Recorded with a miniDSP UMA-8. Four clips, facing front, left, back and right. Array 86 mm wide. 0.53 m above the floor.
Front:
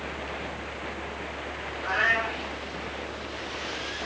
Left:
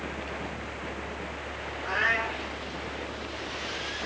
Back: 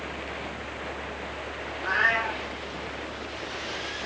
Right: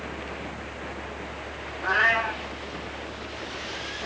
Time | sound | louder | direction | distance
1.8 | a cat meowing | right 5 dB, back 1 dB | 80° right | 3.5 m